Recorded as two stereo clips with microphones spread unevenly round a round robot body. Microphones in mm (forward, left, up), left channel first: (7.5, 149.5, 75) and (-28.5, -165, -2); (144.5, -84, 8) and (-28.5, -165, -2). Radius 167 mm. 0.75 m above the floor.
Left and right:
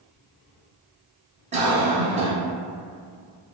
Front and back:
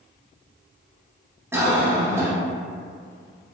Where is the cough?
95° right, 0.9 m.